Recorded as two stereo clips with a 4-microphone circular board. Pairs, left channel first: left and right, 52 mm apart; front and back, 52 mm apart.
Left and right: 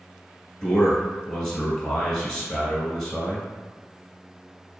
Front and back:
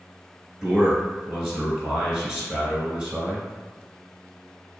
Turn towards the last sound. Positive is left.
turn(degrees=145)